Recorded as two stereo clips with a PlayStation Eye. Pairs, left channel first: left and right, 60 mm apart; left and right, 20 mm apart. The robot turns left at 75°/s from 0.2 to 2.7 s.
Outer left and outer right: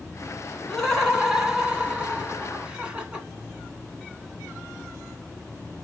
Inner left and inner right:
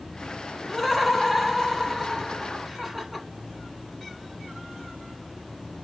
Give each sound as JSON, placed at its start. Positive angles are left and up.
{"t": 0.7, "sound": "laughter", "side_deg": 10, "distance_m": 1.1}